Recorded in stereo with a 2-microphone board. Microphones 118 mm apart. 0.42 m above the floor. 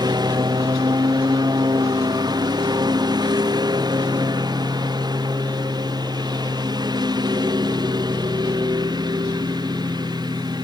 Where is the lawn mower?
35° right (ahead or behind).